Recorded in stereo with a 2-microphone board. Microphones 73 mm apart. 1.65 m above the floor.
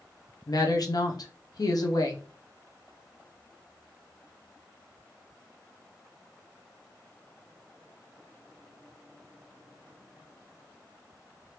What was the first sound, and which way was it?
A woman speaking, 60° left (ahead or behind).